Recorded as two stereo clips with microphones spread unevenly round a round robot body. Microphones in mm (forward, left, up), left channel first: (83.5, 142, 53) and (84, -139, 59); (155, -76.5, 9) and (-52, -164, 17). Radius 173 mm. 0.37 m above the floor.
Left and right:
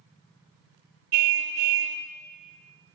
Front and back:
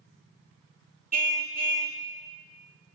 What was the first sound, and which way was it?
A car horn, 110° right.